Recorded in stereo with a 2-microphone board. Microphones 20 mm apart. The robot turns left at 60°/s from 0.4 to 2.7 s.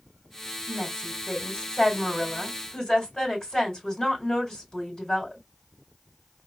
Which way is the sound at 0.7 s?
165° left.